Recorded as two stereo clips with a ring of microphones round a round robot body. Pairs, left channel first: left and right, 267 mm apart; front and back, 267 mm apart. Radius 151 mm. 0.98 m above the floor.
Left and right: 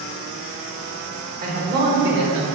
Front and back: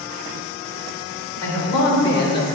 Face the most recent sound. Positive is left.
turn(degrees=-55)